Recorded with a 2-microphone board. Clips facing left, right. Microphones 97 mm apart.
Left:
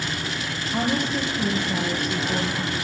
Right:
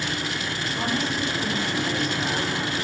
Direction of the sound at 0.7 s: 60° left (ahead or behind).